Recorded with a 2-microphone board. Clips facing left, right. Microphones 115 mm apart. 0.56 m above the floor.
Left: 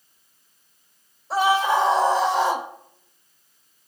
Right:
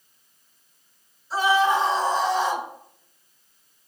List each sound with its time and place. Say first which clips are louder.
1.3 s a scream: left 1 dB; 75° left (ahead or behind), 4.5 m